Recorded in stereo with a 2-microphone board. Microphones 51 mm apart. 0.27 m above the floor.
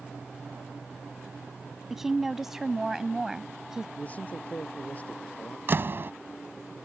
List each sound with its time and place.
1.9 s a woman speaking: 5° right (ahead or behind); by 3.9 s 10° right (ahead or behind)
4.0 s a man speaking: 30° left (ahead or behind)
5.7 s a door slam: 50° right (ahead or behind)